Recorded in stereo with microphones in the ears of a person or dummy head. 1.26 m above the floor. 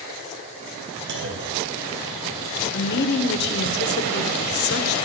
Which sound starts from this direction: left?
A woman speaking, at 2.7 s.